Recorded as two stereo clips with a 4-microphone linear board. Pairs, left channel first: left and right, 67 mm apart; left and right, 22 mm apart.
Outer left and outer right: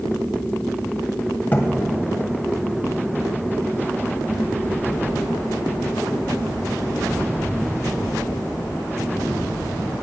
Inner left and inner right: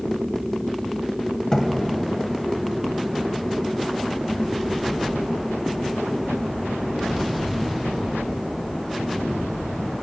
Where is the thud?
30° left (ahead or behind), 1.8 m.